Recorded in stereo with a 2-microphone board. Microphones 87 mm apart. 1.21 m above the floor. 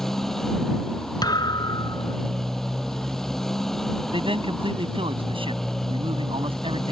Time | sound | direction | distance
0.0 | a motorcycle | 5° left (ahead or behind) | ?
1.2 | a thud | 50° left (ahead or behind) | ?
4.1 | a man speaking | 90° right | ?